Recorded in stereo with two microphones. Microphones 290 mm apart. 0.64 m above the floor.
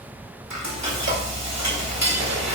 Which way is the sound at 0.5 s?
65° right (ahead or behind).